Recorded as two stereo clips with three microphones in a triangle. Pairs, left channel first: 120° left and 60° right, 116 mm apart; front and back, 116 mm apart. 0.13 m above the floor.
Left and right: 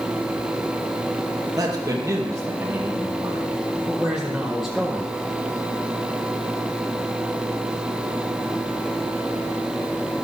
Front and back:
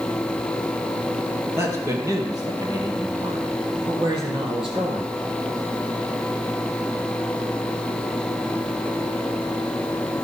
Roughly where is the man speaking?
Behind right.